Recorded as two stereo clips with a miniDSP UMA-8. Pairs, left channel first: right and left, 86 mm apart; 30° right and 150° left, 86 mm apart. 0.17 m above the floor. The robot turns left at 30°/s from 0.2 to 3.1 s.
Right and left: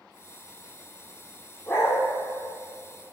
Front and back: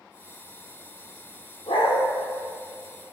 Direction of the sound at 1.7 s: 30° right.